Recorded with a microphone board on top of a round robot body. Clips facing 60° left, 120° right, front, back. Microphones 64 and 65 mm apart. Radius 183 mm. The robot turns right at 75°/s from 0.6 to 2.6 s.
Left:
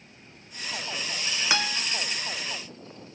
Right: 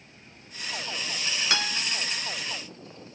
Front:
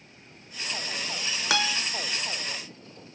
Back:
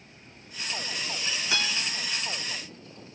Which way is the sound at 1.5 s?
20° right.